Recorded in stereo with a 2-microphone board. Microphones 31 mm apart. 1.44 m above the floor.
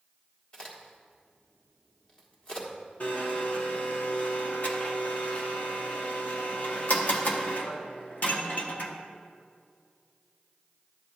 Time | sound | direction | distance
0.5 | a crack | 30° left (ahead or behind) | 1.5 m
3.0 | a blender | 55° left (ahead or behind) | 0.9 m